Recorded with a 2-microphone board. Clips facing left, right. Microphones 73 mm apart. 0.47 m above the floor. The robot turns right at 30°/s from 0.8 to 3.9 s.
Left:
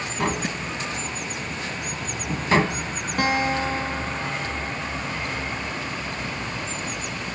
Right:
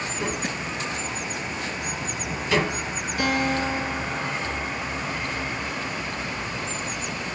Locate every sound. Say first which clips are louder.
0.2 s tapping: left 5 dB; 85° left, 1.0 m; by 2.9 s 25° left (ahead or behind), 1.0 m
3.2 s a guitar: left 1 dB; 50° left (ahead or behind), 4.5 m; by 5.7 s 30° left (ahead or behind), 4.5 m